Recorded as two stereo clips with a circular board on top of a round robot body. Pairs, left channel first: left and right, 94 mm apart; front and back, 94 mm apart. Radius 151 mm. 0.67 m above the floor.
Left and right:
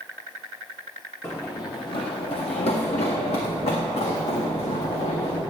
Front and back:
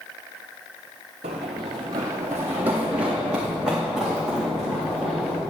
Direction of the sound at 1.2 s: 165° left.